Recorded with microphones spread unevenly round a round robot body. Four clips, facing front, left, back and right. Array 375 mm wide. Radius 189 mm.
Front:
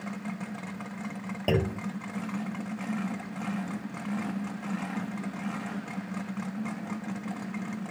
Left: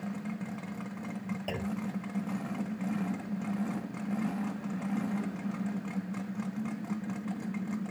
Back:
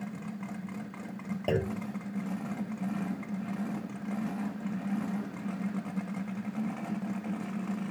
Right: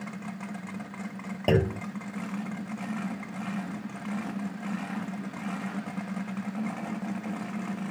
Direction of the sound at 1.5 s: 75° right.